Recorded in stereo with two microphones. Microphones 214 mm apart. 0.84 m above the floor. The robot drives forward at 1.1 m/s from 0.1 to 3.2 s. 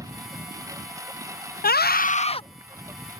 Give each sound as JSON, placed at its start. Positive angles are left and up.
{"t": 0.0, "sound": "a lawn mower", "side_deg": -15}
{"t": 1.6, "sound": "a scream", "side_deg": 40}